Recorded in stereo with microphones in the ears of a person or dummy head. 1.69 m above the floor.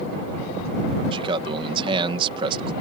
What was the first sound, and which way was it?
A man speaking, 30° right (ahead or behind).